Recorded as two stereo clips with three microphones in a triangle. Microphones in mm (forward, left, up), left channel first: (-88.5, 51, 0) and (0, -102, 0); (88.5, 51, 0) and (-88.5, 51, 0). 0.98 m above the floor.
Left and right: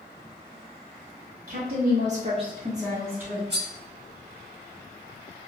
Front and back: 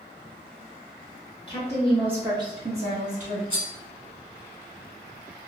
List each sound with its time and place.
1.5 s a woman speaking: 50° right, 0.6 m; by 3.4 s 140° right, 1.3 m
3.5 s cutlery clinking: 60° right, 1.1 m